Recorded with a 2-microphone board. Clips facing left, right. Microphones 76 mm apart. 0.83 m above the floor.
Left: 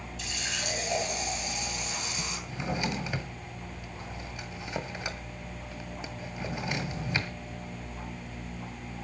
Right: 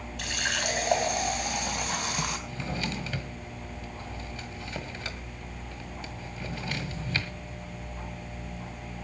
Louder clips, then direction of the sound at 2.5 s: Left 2 dB; 20° left (ahead or behind).